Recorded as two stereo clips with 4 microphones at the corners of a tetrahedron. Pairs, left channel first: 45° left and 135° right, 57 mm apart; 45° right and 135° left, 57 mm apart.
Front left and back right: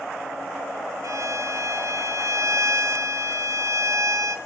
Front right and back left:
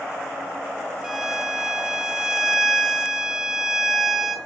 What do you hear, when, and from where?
1.0 s a violin: 145° right, 2.5 m